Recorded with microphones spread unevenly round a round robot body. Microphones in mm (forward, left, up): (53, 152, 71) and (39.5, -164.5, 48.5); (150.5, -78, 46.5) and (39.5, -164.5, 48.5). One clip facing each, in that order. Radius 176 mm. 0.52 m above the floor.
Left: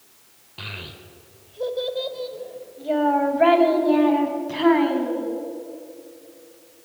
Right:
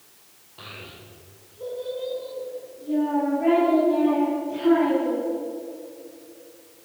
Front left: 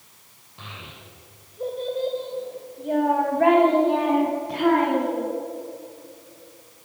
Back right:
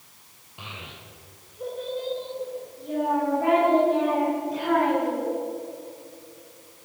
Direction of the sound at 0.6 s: 135° left.